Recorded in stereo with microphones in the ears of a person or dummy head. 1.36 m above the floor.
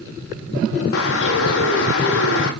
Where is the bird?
75° left (ahead or behind), 1.9 m.